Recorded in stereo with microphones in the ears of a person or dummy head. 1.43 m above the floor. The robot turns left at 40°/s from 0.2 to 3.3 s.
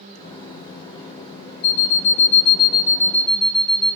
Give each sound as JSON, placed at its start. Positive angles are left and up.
{"t": 1.6, "sound": "an alarm clock", "azimuth_deg": 70, "distance_m": 1.0}